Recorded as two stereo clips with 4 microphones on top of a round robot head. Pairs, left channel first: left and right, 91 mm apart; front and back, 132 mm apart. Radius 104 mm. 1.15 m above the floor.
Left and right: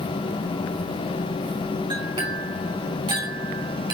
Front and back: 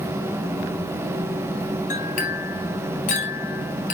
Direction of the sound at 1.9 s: 35° right.